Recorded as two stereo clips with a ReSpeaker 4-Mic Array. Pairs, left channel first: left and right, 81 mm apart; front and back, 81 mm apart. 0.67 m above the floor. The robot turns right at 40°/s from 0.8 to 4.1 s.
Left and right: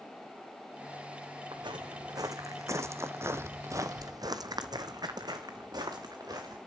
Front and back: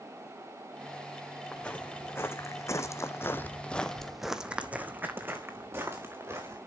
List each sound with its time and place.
1.5 s footsteps: 75° right, 2.5 m; by 6.6 s 125° right, 3 m